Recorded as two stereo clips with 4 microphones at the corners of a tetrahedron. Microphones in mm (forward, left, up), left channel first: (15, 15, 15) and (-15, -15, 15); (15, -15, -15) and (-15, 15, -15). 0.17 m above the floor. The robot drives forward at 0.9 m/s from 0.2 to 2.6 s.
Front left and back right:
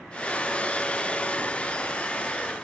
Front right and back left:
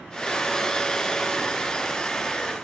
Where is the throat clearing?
I don't hear throat clearing.